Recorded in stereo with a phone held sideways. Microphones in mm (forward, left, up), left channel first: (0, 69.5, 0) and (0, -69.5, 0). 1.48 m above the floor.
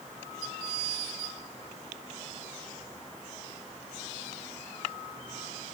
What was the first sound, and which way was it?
Only background noise.